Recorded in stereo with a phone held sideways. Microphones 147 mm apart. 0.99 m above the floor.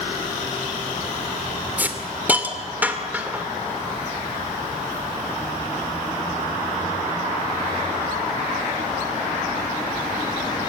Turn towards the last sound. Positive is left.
turn(degrees=-10)  # may be behind; listen again after turning